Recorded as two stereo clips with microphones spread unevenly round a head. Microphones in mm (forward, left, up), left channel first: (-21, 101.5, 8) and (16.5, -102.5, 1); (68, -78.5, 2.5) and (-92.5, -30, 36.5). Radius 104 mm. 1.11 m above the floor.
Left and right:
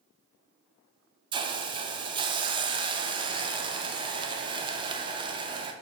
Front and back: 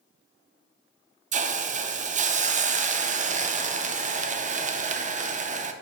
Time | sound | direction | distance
1.3 | a hiss | 145° right | 0.5 m